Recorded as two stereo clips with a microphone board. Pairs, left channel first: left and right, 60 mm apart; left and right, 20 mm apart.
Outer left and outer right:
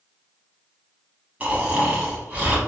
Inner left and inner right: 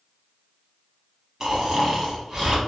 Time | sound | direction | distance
1.4 | snoring | 20° right (ahead or behind) | 0.9 m